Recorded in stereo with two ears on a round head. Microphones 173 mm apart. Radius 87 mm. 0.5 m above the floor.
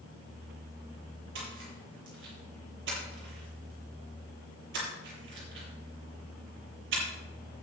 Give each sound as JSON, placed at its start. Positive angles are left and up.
{"t": 1.4, "sound": "a splash", "side_deg": -70, "distance_m": 8.0}